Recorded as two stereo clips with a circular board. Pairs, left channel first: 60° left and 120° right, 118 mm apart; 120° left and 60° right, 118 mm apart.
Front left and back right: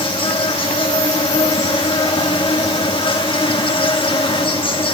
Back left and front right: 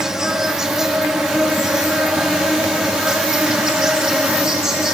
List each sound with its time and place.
0.0 s an insect: 25° left, 1.2 m